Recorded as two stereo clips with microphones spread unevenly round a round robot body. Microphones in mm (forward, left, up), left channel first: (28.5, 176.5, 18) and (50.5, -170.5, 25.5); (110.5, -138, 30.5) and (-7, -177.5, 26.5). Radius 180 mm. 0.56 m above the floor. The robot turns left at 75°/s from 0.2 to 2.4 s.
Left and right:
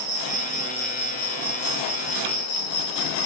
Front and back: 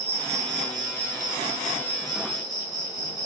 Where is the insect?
130° right, 4 m; by 3.3 s 65° left, 4 m.